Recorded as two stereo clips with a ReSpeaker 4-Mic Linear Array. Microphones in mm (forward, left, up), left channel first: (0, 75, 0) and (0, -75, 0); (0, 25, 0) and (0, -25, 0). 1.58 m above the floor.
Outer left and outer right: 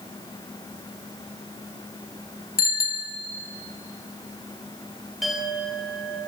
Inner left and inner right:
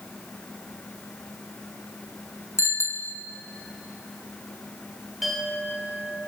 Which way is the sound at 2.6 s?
70° left (ahead or behind).